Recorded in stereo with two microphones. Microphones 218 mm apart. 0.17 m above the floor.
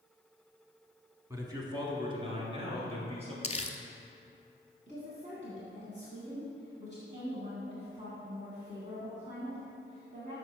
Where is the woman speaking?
35° right (ahead or behind), 1.8 m.